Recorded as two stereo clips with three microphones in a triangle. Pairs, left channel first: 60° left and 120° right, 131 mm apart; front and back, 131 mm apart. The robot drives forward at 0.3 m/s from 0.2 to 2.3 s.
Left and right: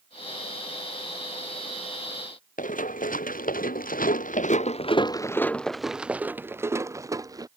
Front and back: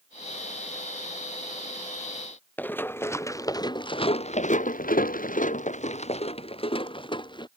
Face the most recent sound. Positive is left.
turn(degrees=-55)